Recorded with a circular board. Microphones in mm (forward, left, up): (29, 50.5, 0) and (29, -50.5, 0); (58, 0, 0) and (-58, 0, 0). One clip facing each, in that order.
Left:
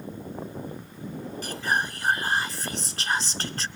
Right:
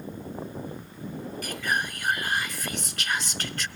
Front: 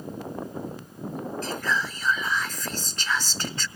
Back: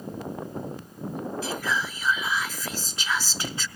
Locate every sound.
1.4 s whispering: 105° left, 1.2 m